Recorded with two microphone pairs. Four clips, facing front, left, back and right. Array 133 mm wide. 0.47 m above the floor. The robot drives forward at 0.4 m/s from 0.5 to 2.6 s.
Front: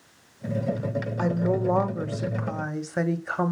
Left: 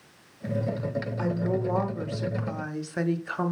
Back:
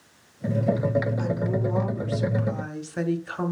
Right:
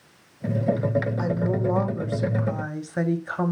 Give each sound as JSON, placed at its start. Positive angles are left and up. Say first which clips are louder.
{"t": 1.2, "sound": "a woman speaking", "louder": "right 3 dB, front 2 dB", "azimuth_deg": -5, "distance_m": 1.1}